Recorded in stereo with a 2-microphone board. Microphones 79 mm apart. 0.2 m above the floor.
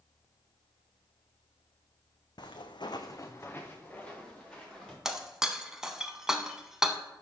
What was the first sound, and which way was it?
Footsteps, 65° left (ahead or behind).